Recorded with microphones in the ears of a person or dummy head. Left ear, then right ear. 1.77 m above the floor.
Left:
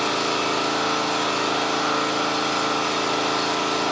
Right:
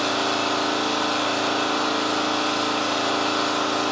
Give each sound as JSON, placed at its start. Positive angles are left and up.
{"t": 0.0, "sound": "an engine running", "side_deg": 50, "distance_m": 1.0}